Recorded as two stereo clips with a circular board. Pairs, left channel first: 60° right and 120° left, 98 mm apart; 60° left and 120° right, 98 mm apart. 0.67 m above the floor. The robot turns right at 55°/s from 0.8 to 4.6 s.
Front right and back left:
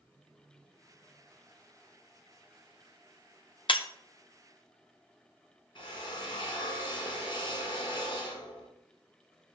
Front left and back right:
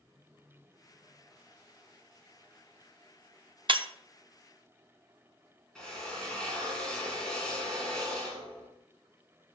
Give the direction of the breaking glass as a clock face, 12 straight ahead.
3 o'clock.